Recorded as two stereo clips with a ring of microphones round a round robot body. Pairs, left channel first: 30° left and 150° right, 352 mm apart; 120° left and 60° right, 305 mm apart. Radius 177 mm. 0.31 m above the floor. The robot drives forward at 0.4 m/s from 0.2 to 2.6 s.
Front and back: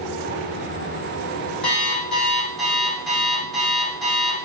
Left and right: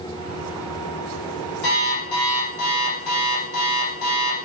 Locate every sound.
1.6 s an alarm clock: 120° left, 7 m